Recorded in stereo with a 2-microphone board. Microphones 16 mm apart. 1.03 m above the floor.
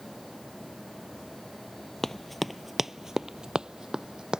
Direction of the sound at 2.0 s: 20° left (ahead or behind).